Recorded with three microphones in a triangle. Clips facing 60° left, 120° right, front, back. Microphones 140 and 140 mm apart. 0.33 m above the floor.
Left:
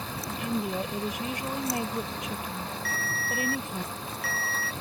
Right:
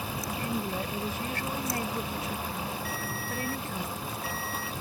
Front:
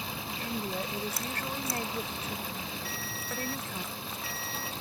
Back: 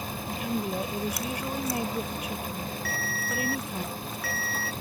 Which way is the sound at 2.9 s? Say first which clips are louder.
Left 1 dB, back 6 dB; 65° left.